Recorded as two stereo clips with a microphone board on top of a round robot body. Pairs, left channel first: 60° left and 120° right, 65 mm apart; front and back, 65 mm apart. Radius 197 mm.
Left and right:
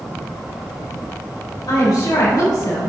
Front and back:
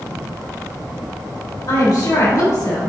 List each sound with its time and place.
1.7 s a woman speaking: 40° left, 3.5 m